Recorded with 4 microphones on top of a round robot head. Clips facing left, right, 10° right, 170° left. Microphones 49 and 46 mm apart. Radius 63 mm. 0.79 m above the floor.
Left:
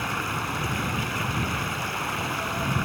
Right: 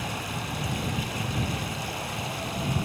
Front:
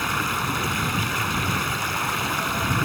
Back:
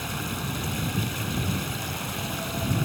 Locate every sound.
0.0 s running water: 30° left